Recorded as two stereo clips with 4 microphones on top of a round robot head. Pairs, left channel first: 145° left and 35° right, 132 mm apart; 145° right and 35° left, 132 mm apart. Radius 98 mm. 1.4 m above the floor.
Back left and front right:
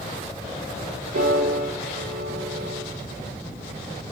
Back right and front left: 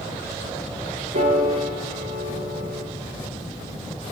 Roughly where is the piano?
Ahead.